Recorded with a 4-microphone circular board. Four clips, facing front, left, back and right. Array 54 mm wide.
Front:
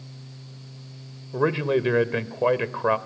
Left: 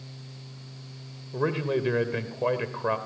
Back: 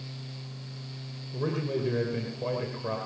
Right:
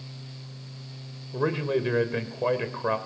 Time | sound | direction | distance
1.3 | a man speaking | straight ahead | 2.5 m